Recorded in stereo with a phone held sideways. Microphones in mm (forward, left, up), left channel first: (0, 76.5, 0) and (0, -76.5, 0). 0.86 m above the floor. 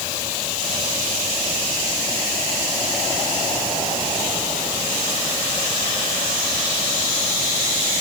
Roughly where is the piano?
I don't hear a piano.